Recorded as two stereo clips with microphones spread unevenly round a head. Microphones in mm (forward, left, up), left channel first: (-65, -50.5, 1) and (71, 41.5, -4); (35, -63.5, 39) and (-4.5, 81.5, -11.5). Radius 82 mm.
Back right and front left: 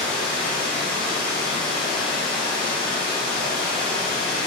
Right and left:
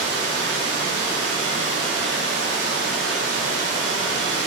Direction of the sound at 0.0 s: 130° left.